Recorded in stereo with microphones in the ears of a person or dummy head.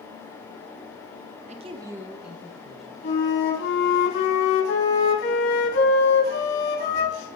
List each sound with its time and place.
1.5 s a man speaking: 35° right (ahead or behind), 0.6 m; by 2.9 s centre (ahead or behind), 2 m
3.0 s a flute: 80° left, 3.5 m